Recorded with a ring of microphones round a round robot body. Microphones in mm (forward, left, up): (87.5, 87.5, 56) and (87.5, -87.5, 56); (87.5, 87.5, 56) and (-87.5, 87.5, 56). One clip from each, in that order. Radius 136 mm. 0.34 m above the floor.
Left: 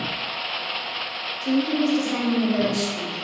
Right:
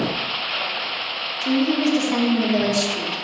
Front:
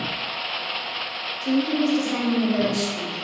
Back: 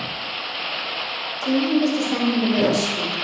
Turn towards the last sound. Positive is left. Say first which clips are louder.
# right 2 dB, back 3 dB
turn(degrees=-115)